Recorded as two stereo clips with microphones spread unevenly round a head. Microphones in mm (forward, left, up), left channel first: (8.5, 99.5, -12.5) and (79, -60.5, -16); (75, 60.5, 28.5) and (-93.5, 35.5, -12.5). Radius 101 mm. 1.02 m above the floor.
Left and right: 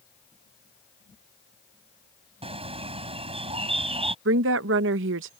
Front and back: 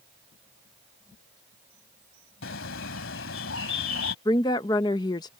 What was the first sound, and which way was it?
A bird, 10° right.